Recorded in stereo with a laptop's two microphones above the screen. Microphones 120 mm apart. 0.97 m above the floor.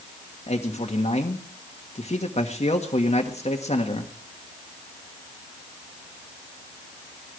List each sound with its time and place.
0.5 s a man speaking: 65° left (ahead or behind), 1.6 m